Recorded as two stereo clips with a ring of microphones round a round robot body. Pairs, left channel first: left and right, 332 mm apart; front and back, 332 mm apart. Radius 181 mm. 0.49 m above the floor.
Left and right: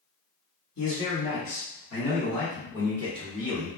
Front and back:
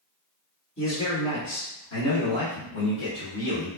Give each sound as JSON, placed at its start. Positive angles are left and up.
{"t": 0.8, "sound": "a man speaking", "azimuth_deg": 55, "distance_m": 1.8}